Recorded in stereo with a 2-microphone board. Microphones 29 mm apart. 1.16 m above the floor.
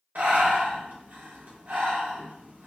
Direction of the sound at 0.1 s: 75° right (ahead or behind).